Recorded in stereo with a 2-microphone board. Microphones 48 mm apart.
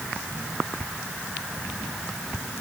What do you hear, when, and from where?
Only background noise.